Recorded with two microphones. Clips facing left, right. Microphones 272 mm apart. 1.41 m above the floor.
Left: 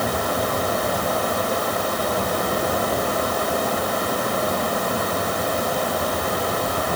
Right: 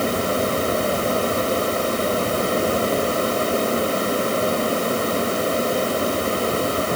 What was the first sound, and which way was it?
Only background noise.